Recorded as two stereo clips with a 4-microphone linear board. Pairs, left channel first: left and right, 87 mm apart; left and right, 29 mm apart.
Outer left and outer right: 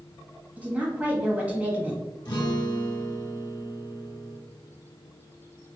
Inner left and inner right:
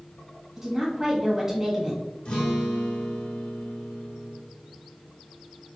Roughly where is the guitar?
Left.